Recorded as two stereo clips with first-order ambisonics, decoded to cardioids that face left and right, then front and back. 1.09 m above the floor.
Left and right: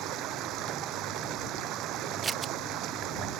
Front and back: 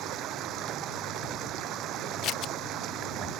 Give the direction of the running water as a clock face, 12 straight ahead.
4 o'clock.